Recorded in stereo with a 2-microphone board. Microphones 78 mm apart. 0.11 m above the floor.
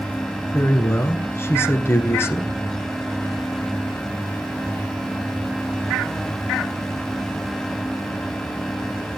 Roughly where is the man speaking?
Left.